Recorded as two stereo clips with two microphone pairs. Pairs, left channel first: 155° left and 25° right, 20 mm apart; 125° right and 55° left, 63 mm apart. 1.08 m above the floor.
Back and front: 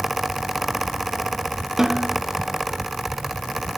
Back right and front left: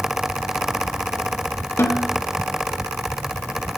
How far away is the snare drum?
About 1.6 m.